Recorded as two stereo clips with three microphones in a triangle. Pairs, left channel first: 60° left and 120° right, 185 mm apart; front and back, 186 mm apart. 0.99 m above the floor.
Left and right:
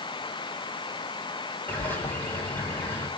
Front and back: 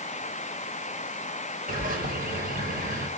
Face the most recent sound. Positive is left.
turn(degrees=140)